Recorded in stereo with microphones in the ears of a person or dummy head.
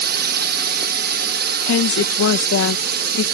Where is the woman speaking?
70° left (ahead or behind).